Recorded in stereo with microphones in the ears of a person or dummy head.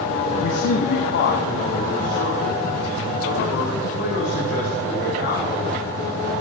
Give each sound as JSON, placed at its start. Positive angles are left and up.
{"t": 0.4, "sound": "a man speaking", "side_deg": 50, "distance_m": 0.8}